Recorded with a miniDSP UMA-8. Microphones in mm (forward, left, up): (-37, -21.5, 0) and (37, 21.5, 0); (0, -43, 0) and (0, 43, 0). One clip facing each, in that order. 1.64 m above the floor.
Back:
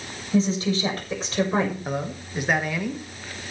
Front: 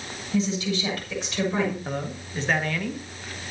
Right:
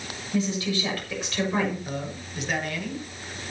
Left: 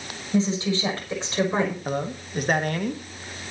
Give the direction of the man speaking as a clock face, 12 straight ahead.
8 o'clock.